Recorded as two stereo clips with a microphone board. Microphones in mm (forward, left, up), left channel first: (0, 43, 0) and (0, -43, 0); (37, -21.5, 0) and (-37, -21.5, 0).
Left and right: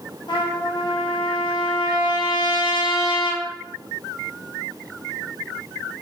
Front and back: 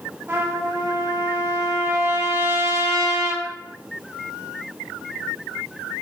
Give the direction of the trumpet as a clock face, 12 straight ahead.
8 o'clock.